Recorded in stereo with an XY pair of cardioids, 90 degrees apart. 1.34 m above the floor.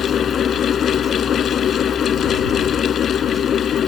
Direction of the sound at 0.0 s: 60° left.